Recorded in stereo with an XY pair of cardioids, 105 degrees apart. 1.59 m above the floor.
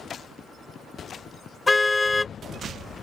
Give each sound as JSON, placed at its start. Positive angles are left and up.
{"t": 1.7, "sound": "a car horn", "azimuth_deg": 20}